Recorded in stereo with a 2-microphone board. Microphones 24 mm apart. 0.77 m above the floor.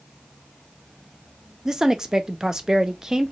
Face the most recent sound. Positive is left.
turn(degrees=-25)  # may be behind; listen again after turning